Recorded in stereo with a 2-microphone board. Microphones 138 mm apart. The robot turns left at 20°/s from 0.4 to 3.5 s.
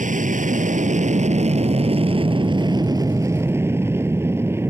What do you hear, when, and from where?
0.0 s an aircraft: 100° right; by 4.7 s 160° right